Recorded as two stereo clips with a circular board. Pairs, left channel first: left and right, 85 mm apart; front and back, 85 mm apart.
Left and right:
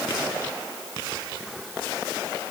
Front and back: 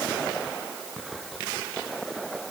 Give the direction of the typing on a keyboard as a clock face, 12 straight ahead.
I don't hear typing on a keyboard.